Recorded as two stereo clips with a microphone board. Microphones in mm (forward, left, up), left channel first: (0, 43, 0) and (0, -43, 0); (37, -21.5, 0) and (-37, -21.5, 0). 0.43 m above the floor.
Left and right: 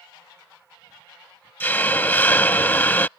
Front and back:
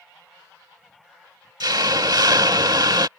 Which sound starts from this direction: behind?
A hiss, at 1.6 s.